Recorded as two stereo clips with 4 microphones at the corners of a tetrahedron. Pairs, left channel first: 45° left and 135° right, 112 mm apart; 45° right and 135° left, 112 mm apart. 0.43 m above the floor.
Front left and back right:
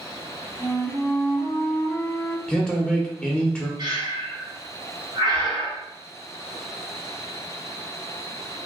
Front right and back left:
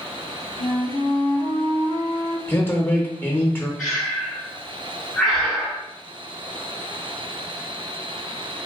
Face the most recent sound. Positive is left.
turn(degrees=-135)